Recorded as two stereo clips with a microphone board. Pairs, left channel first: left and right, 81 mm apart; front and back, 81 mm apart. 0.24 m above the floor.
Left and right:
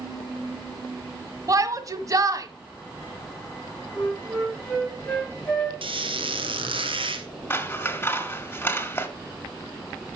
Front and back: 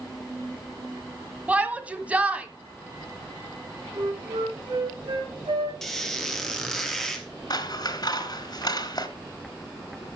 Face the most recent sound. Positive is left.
turn(degrees=25)